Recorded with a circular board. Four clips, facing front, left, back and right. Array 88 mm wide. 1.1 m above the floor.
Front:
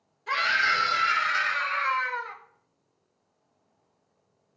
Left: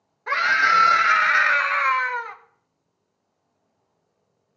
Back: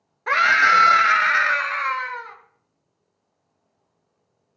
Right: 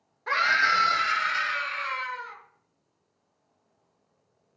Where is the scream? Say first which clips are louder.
Left 4 dB, back 9 dB; 175° left, 1.1 m; by 2.4 s 90° left, 1.0 m.